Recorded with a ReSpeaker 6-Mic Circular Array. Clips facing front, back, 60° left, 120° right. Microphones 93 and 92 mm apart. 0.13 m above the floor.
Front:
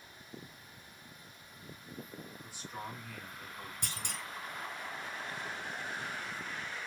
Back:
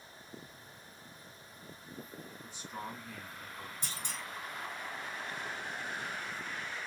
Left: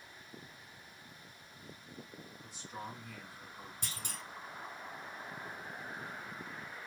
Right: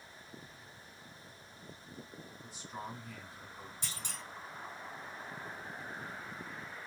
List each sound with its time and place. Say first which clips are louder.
2.4 s a man speaking: back 2 dB, right 1 dB; 175° left, 1.8 m; by 3.7 s 110° left, 1.7 m
3.8 s a clunk: front 1 dB, left 1 dB; 20° left, 1.0 m